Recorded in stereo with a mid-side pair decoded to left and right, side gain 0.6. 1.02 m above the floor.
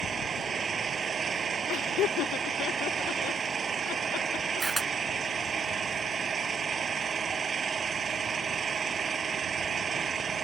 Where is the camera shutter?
15° right.